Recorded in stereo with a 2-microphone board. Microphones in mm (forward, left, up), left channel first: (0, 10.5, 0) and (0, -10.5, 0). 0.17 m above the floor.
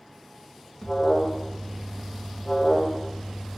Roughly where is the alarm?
Left.